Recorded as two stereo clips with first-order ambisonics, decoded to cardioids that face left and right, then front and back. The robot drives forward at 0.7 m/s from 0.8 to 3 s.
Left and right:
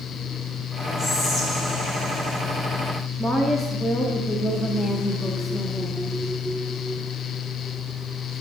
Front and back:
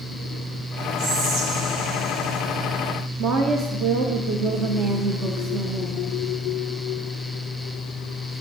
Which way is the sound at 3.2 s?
175° left.